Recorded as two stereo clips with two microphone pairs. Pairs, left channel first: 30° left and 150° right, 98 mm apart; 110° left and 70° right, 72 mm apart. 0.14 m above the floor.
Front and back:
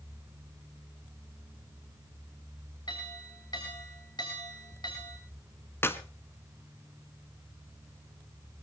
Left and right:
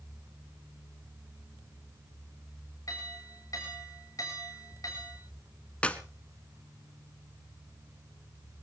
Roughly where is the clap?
Ahead left.